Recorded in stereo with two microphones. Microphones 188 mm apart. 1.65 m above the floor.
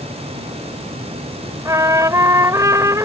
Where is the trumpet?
15° right (ahead or behind).